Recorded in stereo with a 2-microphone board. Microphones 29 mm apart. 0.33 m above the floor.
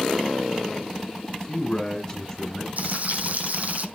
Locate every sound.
1.3 s a man speaking: 10° left (ahead or behind), 2.5 m
2.8 s frying: 55° right (ahead or behind), 3 m